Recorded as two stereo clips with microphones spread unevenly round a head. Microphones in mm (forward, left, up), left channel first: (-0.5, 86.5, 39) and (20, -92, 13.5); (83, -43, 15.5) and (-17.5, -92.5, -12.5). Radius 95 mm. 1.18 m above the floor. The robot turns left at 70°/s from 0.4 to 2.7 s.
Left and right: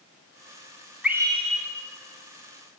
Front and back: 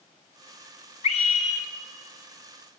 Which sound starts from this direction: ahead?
A scream, at 1.0 s.